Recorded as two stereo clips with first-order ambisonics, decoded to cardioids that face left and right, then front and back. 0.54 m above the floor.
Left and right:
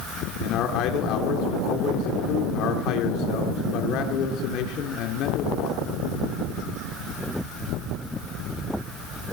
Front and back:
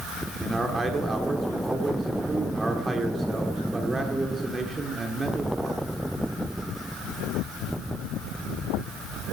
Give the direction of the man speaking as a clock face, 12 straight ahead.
9 o'clock.